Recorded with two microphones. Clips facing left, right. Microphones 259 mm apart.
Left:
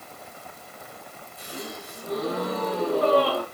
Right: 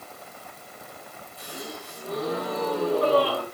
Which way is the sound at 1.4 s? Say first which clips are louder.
Left 1 dB; 20° left (ahead or behind).